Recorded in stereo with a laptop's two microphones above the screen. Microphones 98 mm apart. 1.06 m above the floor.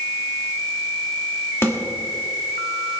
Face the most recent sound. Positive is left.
turn(degrees=25)  # may be behind; listen again after turning